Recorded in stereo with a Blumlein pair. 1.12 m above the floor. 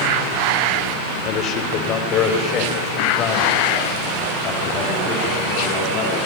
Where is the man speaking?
30° left, 3.5 m.